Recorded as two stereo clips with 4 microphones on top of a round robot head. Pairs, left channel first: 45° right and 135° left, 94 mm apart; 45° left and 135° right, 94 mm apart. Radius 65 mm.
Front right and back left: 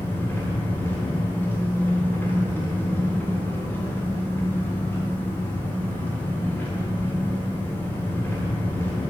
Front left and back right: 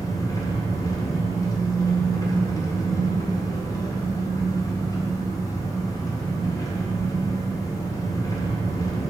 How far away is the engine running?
About 1.3 m.